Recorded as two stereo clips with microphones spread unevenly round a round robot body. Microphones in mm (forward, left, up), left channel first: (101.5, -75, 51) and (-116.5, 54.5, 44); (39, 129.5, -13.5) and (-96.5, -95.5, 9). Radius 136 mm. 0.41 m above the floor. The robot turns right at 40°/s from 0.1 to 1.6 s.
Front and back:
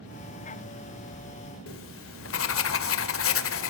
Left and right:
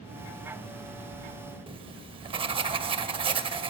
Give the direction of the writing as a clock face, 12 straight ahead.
2 o'clock.